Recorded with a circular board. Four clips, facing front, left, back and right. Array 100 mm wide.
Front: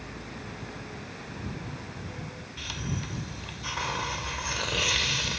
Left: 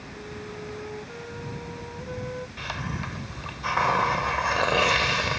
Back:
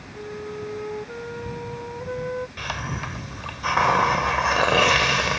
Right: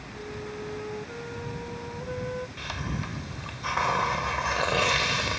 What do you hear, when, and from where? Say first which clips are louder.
0.1 s a flute: right 2 dB, back 14 dB; straight behind
2.6 s a hiss: left 1 dB, back 6 dB; 165° left